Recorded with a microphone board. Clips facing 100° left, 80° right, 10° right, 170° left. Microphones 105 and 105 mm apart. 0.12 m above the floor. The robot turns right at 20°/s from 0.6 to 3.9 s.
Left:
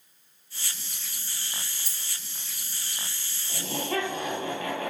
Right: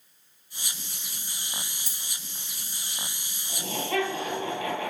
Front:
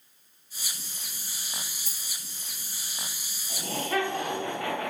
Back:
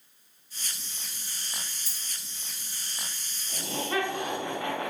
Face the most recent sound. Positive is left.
turn(degrees=110)